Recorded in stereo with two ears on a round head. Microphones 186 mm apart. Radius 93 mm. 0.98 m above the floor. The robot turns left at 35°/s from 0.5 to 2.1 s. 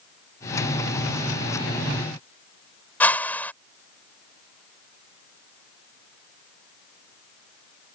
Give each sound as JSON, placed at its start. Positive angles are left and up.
{"t": 3.0, "sound": "a whoosh", "side_deg": 10}